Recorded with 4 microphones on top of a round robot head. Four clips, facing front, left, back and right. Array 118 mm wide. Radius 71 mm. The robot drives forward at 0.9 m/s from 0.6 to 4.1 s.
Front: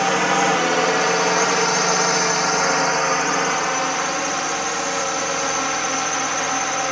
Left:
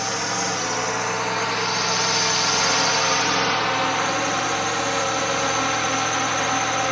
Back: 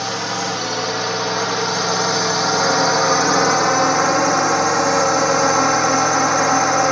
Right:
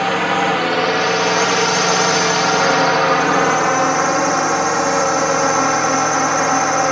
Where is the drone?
60° right; by 6.9 s 135° right.